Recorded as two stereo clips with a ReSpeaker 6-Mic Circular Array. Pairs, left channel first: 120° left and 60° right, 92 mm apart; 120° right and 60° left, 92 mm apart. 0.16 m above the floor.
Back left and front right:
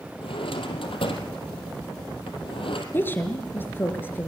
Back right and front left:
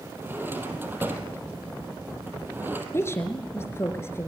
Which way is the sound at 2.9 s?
175° right.